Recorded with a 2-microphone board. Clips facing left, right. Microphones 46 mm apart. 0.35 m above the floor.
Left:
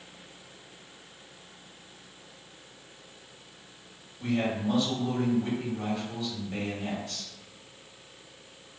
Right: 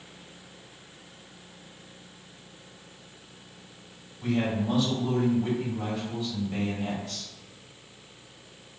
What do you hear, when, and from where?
4.2 s a man speaking: centre (ahead or behind), 2.0 m